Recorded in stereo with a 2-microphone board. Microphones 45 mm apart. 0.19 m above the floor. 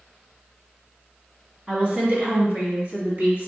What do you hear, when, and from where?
1.7 s a woman speaking: 30° right (ahead or behind), 1.6 m; by 3.5 s 50° right (ahead or behind), 2.0 m